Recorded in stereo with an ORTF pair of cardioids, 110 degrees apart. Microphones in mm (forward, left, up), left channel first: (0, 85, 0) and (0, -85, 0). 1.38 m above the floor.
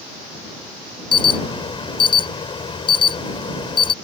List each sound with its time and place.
1.1 s an alarm: 30° left